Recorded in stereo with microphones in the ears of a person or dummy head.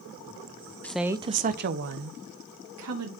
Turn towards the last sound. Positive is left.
turn(degrees=-80)